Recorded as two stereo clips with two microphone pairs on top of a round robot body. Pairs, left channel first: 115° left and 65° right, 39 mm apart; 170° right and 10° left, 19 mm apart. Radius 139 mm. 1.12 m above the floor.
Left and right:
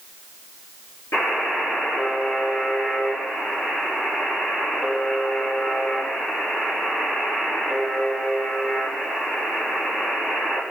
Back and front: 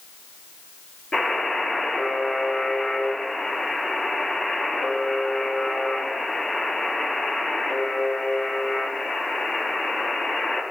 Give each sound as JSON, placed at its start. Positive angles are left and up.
{"t": 1.1, "sound": "a buzzer", "azimuth_deg": 125, "distance_m": 4.0}